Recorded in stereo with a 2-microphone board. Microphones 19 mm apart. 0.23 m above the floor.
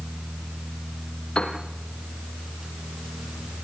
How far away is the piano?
About 3 m.